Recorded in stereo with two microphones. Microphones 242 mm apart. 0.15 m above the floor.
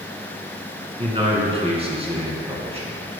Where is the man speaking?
25° right (ahead or behind), 1.7 m.